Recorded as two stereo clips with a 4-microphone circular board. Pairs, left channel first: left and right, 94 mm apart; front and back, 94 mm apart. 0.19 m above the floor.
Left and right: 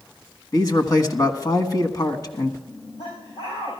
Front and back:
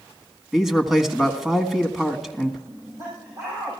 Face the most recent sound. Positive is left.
turn(degrees=120)